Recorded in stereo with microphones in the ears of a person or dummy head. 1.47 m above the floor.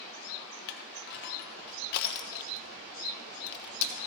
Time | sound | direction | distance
0.7 | crushing | 55° left (ahead or behind) | 0.7 m